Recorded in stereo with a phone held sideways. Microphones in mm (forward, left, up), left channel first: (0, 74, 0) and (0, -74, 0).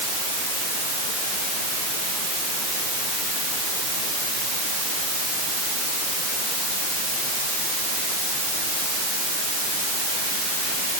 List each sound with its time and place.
Only background noise.